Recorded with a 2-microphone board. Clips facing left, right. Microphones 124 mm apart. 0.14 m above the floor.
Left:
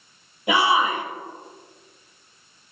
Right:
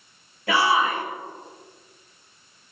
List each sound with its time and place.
0.5 s a shout: 20° left (ahead or behind), 2.5 m